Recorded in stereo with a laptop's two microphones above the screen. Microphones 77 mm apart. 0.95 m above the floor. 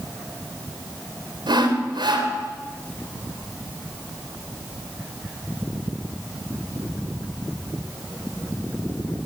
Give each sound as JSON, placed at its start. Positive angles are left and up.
{"t": 1.5, "sound": "sawing", "side_deg": -75, "distance_m": 3.0}